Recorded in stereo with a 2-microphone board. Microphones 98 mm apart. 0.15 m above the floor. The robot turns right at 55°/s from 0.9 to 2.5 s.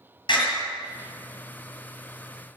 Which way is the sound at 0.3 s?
55° left (ahead or behind).